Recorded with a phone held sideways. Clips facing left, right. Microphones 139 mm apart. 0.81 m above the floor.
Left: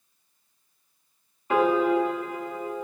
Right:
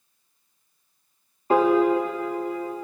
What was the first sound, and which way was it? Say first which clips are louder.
A piano: right 3 dB; 35° right (ahead or behind).